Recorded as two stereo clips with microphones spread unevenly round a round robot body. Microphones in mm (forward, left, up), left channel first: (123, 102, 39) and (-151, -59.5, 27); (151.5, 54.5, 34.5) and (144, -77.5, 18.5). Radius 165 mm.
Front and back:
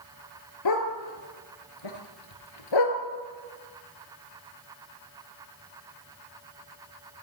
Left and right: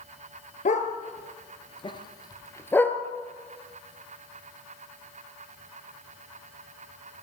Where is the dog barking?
60° left, 3.5 m; by 3.0 s 10° left, 3 m.